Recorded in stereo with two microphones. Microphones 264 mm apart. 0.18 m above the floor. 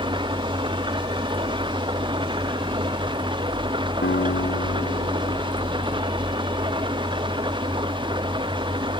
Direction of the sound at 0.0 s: 20° right (ahead or behind).